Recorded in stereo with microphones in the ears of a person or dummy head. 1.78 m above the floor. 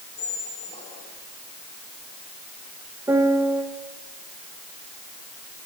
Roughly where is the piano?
Centre.